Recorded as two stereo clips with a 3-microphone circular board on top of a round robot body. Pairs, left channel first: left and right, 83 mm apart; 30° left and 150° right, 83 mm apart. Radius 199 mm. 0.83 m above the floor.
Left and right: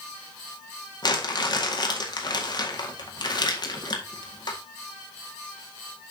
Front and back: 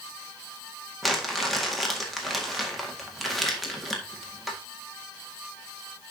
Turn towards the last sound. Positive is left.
turn(degrees=120)